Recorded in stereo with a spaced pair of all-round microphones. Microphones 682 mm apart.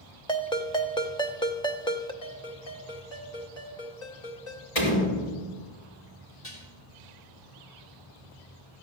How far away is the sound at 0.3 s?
About 0.7 m.